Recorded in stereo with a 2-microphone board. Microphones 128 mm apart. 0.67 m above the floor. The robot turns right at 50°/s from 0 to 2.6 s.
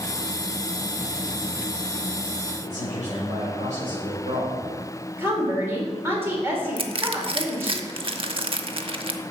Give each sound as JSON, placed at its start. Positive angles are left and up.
{"t": 2.6, "sound": "a man speaking", "side_deg": -70, "distance_m": 3.5}
{"t": 5.2, "sound": "a woman speaking", "side_deg": -20, "distance_m": 2.5}
{"t": 6.8, "sound": "crushing", "side_deg": -45, "distance_m": 0.7}